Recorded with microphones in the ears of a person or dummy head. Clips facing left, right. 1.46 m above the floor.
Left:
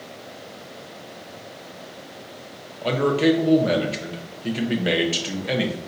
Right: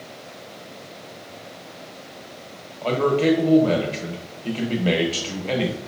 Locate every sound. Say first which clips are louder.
2.8 s a man speaking: even; 15° left (ahead or behind), 0.9 m